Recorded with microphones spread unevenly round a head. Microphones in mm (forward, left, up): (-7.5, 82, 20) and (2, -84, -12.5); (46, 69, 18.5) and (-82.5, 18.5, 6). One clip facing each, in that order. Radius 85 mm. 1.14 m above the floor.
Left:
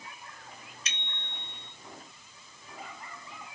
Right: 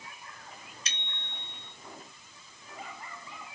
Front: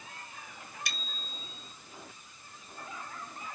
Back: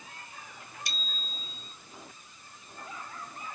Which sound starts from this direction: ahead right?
A bicycle bell, at 0.8 s.